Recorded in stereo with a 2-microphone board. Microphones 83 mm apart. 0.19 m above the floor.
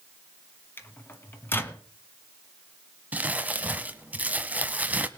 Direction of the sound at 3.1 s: 20° right (ahead or behind).